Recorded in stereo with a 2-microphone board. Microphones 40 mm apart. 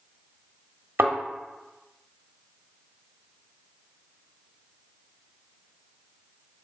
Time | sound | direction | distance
1.0 | a thud | 80° right | 1.3 m